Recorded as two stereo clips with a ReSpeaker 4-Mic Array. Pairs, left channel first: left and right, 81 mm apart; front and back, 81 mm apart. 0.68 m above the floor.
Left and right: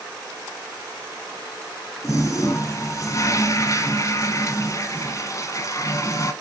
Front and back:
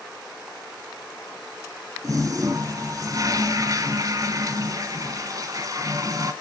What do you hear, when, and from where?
2.0 s a toilet flushing: 135° left, 1.3 m